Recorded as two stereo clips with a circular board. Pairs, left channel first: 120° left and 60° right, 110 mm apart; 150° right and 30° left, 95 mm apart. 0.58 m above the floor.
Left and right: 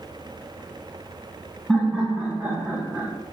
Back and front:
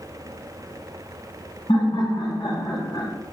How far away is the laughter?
About 3.5 m.